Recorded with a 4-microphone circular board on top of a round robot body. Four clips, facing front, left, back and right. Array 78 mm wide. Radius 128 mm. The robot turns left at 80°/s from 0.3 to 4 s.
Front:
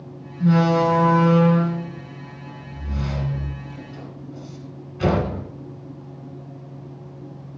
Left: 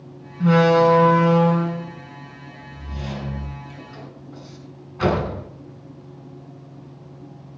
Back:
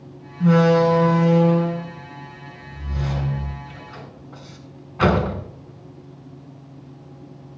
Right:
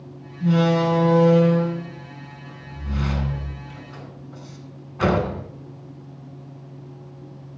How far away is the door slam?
About 5 m.